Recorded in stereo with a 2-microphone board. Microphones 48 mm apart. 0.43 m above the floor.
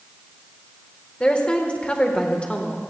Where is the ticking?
No ticking in this recording.